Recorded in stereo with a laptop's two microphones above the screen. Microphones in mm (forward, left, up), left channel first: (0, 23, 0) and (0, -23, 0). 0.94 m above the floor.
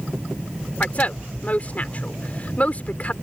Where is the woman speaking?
30° left (ahead or behind).